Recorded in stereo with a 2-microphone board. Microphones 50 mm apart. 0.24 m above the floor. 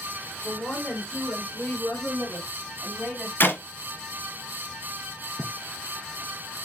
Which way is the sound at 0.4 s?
20° left (ahead or behind).